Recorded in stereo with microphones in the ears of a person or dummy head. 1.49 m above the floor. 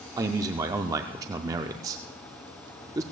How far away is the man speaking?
About 0.5 m.